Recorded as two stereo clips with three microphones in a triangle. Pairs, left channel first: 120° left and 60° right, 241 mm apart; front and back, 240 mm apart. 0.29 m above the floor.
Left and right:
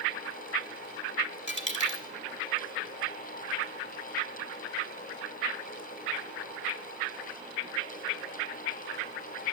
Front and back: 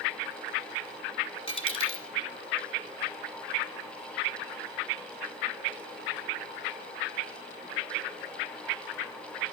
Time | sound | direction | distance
1.5 | a dropped coin | 65° left | 1.3 m